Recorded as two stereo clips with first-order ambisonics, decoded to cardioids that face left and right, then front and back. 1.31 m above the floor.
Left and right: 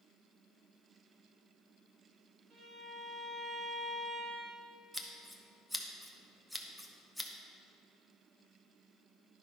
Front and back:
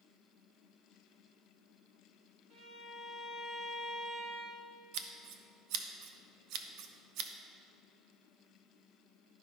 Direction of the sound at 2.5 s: 140° right.